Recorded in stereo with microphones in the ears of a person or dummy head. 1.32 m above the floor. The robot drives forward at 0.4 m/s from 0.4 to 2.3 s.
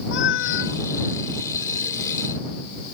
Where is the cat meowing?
65° left (ahead or behind).